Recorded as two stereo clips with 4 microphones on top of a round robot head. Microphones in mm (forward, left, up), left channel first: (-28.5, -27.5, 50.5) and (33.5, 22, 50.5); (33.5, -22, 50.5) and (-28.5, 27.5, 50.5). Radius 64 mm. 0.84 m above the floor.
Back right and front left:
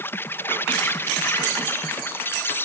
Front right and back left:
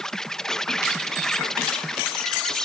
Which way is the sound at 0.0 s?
115° right.